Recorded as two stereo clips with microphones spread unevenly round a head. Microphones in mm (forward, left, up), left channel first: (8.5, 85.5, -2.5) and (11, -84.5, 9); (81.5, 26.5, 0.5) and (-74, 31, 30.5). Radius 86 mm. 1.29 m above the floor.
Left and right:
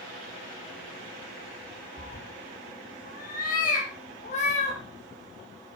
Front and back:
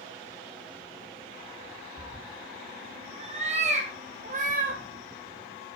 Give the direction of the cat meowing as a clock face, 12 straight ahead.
8 o'clock.